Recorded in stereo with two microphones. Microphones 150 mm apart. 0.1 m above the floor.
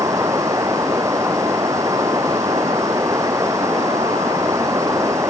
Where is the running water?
20° right (ahead or behind).